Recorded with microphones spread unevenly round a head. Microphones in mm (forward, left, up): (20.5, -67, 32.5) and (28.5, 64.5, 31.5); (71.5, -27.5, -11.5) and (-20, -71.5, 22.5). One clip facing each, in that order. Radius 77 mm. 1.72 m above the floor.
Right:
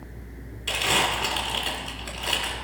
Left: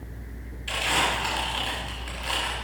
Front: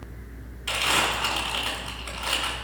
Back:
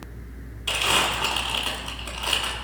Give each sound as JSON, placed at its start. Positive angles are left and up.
{"t": 0.7, "sound": "crumpling", "azimuth_deg": -95, "distance_m": 2.5}